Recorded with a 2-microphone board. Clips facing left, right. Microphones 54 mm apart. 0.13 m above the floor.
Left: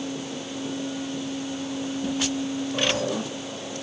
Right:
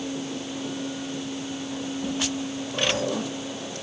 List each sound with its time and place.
Only background noise.